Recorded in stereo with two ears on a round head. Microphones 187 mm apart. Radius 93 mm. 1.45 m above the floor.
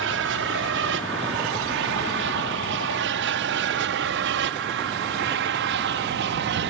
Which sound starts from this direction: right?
An aircraft, at 0.0 s.